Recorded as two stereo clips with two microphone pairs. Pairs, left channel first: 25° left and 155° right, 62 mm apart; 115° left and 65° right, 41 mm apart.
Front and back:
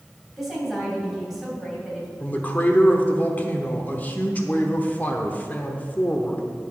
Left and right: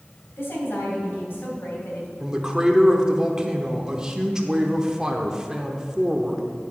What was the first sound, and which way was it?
A woman speaking, 125° left.